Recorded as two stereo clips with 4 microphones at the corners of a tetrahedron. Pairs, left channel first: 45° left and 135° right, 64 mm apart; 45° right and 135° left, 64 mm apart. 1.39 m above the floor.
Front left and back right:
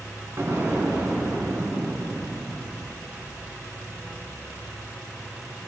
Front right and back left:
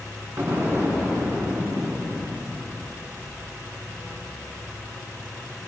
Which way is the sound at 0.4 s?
175° right.